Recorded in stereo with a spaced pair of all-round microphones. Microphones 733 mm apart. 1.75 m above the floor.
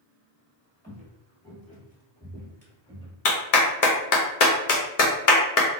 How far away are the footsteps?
About 1.9 m.